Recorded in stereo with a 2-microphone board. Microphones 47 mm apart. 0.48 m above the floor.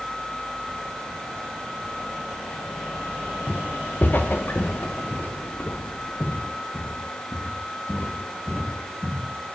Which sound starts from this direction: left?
Footsteps, at 3.5 s.